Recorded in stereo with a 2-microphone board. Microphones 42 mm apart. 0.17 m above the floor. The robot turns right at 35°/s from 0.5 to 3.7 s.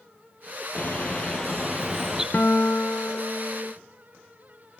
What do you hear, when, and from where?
0.8 s a bird: 140° left, 3.5 m; by 2.2 s 170° right, 3.5 m
2.3 s a guitar: 50° left, 0.9 m; by 3.7 s 95° left, 0.9 m